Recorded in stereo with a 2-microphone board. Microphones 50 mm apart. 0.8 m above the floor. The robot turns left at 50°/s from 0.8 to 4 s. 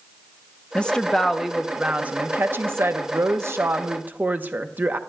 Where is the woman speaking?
20° left, 0.7 m; by 5.0 s 140° right, 0.7 m.